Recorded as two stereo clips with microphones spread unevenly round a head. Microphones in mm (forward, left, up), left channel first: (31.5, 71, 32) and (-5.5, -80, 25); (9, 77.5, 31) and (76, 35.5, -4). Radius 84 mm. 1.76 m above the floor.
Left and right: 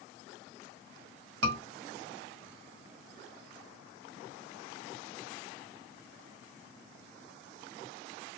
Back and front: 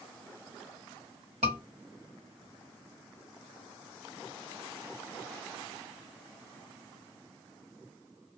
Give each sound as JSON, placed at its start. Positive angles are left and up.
{"t": 1.4, "sound": "a scream", "azimuth_deg": -90, "distance_m": 1.7}